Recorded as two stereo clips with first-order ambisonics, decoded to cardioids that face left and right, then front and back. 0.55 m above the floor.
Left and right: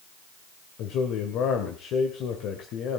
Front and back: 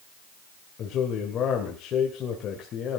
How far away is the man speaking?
About 2.5 m.